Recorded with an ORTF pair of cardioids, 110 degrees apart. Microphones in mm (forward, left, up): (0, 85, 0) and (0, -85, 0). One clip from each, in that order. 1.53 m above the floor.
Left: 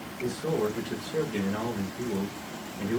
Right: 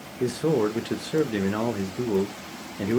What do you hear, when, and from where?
0.2 s a man speaking: 50° right, 1.0 m